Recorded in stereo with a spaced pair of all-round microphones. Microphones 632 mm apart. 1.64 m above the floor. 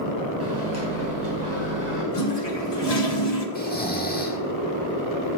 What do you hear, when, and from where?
0.4 s a microwave: 25° right (ahead or behind), 5 m
2.1 s a toilet flushing: 75° left (ahead or behind), 1.7 m
3.5 s snoring: 15° left (ahead or behind), 1.1 m